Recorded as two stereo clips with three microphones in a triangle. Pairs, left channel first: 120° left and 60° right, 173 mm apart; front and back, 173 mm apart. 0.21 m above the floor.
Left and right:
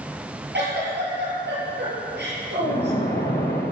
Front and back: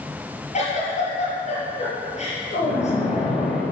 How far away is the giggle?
About 5.5 m.